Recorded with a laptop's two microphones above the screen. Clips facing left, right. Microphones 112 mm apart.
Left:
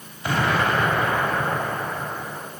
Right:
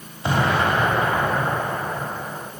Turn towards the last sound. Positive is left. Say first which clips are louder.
# right 2 dB
turn(degrees=-25)  # may be behind; listen again after turning